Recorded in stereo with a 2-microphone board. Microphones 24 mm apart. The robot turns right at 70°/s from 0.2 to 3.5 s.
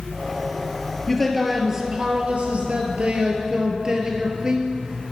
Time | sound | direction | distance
1.1 | a man speaking | 155° left | 1.8 m